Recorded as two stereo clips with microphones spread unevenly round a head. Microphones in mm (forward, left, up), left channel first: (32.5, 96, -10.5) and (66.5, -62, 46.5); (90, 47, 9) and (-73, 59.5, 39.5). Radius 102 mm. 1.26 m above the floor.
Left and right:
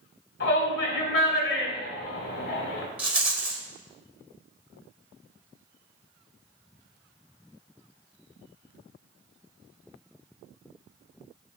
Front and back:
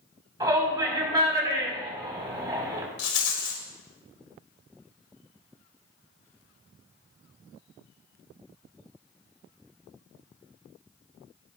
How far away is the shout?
About 5 m.